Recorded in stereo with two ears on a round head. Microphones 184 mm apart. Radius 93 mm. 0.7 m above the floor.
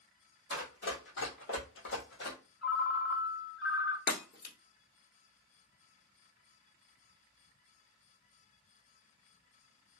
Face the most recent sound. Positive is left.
turn(degrees=50)  # may be behind; listen again after turning